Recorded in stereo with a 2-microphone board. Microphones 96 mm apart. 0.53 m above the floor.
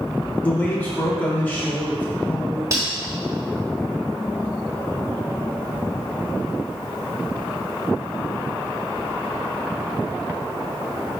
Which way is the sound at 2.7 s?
30° right (ahead or behind).